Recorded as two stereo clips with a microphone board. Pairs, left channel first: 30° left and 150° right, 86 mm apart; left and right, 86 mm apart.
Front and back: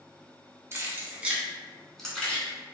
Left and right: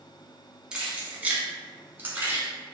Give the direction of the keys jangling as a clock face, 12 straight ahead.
5 o'clock.